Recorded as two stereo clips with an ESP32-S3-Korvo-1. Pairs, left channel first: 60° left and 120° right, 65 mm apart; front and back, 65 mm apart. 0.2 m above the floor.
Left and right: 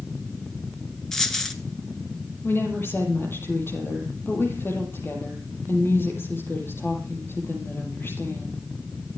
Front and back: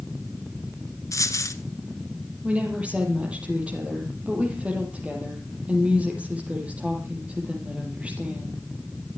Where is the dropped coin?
20° right, 1.5 m.